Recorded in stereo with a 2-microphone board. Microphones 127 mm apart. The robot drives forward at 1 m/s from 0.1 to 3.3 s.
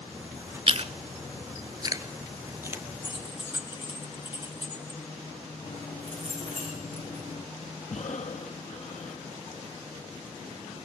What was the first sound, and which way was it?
Chewing, 50° right (ahead or behind).